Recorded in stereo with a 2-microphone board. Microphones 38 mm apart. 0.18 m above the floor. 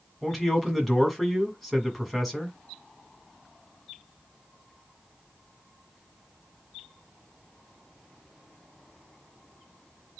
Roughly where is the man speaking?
Centre.